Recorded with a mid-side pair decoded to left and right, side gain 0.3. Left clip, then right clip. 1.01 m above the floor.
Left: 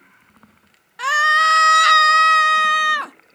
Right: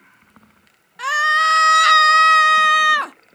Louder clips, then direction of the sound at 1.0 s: Left 1 dB; 30° left.